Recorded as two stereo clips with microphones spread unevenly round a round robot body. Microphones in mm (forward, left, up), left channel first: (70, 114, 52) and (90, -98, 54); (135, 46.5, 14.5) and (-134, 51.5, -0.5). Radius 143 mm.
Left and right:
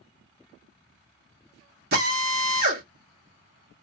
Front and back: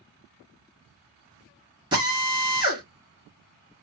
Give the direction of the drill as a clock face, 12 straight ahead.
4 o'clock.